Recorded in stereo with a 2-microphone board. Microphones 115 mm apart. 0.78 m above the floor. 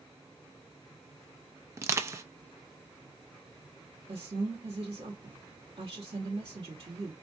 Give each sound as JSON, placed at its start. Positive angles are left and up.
{"t": 1.8, "sound": "crushing", "side_deg": -25, "distance_m": 0.6}
{"t": 4.1, "sound": "a woman speaking", "side_deg": -55, "distance_m": 1.5}